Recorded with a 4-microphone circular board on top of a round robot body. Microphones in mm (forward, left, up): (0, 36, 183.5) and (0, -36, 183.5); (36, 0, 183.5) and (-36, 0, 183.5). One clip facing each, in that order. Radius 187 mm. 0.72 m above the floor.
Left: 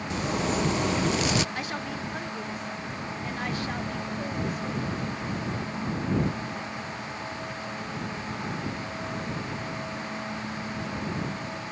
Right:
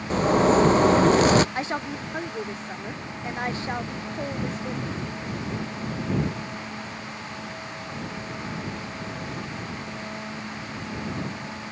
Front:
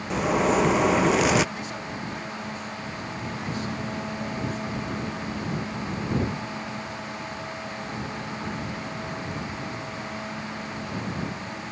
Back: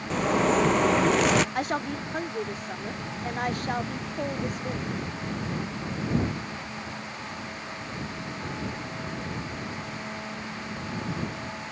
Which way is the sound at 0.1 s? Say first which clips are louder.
Right 10 dB, front 1 dB; 85° right.